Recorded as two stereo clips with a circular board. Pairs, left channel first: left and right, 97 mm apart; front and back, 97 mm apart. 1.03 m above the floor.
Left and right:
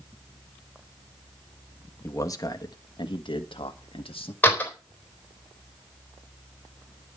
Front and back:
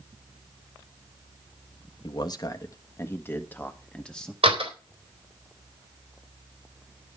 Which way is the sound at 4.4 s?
165° left.